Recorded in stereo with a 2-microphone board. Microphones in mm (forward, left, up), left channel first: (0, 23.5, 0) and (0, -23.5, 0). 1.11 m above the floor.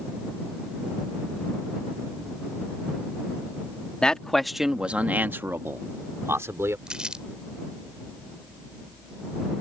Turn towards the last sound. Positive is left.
turn(degrees=-20)  # may be behind; listen again after turning